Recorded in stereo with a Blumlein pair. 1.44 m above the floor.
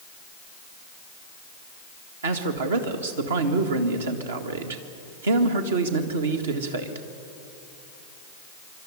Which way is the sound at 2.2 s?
65° right.